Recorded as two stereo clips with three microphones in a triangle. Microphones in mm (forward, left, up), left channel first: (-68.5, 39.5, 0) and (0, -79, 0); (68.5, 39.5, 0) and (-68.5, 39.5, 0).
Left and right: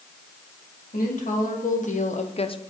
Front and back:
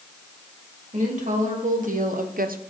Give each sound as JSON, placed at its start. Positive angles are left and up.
{"t": 0.9, "sound": "a woman speaking", "azimuth_deg": 145, "distance_m": 2.0}